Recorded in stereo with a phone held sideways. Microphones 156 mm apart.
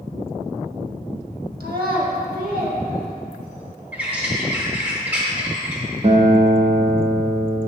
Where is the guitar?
45° right (ahead or behind), 0.8 m.